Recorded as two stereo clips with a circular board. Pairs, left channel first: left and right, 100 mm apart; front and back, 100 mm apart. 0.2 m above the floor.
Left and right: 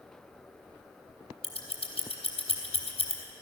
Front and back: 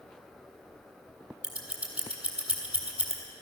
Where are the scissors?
100° left, 2.5 m.